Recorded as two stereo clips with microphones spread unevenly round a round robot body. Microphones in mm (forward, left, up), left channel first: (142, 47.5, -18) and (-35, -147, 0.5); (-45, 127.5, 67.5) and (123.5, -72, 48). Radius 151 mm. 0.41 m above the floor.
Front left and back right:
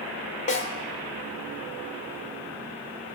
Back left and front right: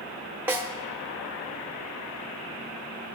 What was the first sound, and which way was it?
A snare drum, 20° left.